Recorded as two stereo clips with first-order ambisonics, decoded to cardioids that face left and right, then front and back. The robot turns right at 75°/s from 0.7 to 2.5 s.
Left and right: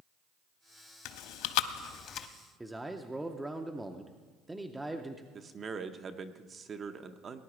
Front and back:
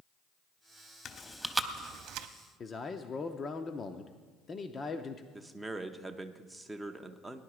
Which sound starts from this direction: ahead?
A man speaking, at 2.6 s.